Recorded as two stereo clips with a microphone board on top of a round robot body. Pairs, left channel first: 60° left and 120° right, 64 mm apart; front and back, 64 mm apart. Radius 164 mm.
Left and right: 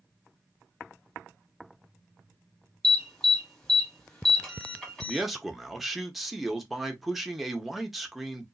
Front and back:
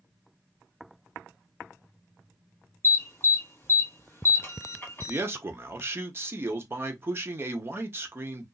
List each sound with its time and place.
2.8 s an alarm: 10° right, 2 m
5.1 s a man speaking: 155° left, 1.0 m